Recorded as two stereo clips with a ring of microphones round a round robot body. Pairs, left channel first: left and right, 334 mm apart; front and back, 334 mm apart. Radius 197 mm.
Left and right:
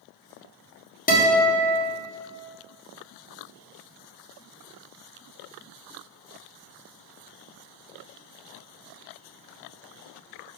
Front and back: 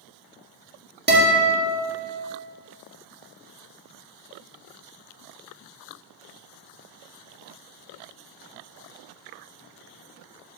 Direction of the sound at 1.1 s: 140° left.